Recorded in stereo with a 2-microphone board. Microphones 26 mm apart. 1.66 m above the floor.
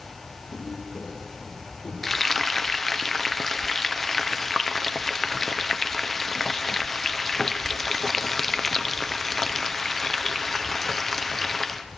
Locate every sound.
0.5 s footsteps: 70° left (ahead or behind), 9.5 m; by 1.9 s 75° left (ahead or behind), 9 m
2.0 s frying: 5° left (ahead or behind), 1.0 m